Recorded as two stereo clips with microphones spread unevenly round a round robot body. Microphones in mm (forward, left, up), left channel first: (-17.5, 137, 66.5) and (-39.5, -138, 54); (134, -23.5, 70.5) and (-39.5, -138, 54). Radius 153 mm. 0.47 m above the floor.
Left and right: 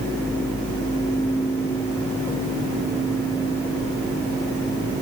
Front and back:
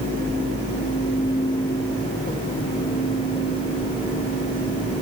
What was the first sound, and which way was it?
Only background noise.